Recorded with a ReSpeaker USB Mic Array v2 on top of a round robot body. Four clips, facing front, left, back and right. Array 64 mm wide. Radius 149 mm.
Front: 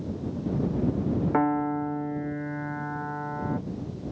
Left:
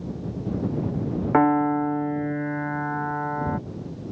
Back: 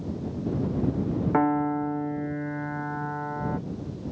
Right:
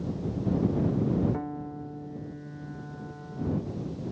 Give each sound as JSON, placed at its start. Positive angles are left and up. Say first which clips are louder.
{"t": 1.3, "sound": "a piano", "louder": "left 16 dB, back 2 dB", "azimuth_deg": 95}